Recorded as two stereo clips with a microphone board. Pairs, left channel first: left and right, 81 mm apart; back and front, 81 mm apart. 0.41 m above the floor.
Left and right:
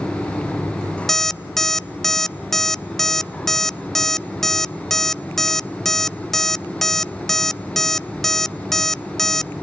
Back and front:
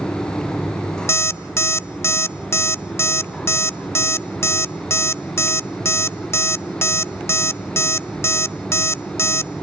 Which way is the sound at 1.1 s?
170° left.